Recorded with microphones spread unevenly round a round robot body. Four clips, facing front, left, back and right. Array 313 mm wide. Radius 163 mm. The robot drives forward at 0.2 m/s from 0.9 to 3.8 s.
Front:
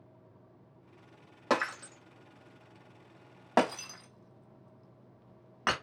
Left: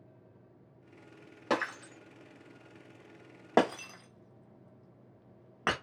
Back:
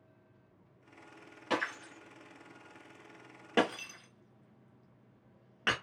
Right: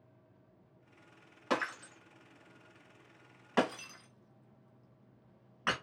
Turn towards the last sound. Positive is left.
turn(degrees=80)